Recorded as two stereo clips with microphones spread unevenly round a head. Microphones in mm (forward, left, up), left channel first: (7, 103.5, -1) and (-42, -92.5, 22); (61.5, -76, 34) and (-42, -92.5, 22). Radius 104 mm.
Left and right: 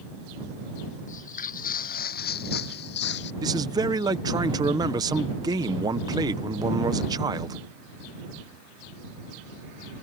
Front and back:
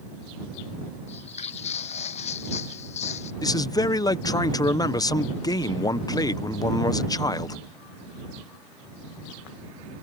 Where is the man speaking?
35° right.